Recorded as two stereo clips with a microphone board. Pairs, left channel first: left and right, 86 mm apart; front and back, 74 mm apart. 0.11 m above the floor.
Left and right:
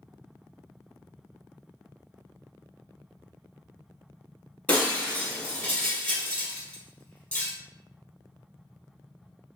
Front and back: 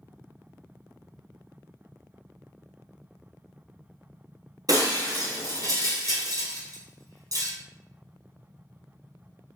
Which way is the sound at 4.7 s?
160° left.